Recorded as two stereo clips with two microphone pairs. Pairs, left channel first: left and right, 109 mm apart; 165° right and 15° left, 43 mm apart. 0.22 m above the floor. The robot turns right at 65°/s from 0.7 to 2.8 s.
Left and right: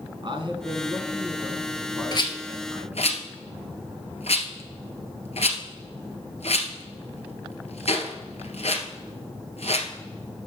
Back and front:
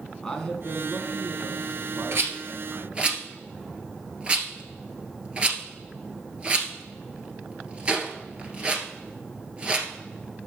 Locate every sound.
0.2 s a man speaking: 85° right, 1.6 m; by 3.1 s 50° left, 1.6 m
2.1 s a rattle: 35° left, 1.4 m; by 9.9 s 80° left, 1.4 m